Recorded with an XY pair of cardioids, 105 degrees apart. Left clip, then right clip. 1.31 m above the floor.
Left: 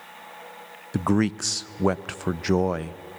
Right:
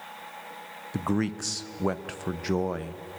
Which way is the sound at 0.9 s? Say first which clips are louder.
Left 5 dB; 35° left.